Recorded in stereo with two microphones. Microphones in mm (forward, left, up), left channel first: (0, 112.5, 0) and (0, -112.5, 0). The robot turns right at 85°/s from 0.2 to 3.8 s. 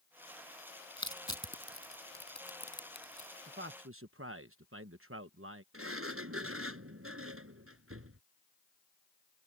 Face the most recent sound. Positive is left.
turn(degrees=-80)